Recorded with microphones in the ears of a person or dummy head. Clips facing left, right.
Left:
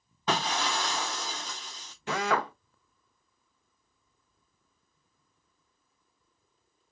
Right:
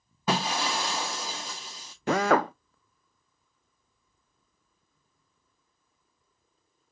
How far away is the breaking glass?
About 0.6 m.